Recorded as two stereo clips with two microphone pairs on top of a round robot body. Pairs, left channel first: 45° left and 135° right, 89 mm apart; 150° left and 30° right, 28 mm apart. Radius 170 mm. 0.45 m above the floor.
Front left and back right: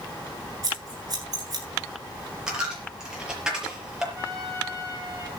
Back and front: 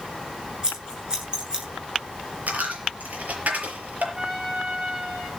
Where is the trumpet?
80° right, 9.5 m.